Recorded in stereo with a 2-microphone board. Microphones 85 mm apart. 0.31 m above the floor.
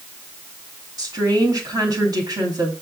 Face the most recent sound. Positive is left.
turn(degrees=-50)  # may be behind; listen again after turning